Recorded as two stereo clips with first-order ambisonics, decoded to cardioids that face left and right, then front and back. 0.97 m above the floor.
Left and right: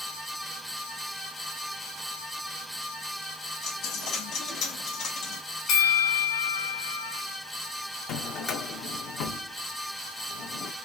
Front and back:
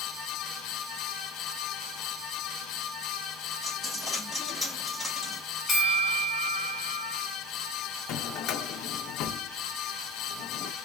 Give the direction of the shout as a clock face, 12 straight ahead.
No shout in this recording.